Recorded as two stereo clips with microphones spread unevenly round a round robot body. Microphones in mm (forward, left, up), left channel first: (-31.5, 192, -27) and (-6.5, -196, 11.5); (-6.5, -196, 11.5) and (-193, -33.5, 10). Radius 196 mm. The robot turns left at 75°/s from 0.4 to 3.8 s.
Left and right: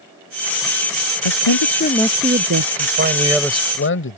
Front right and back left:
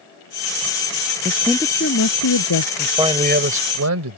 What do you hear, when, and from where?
1.2 s a woman speaking: 70° left; by 2.7 s 40° right
2.8 s a man speaking: 130° right; by 4.2 s 155° left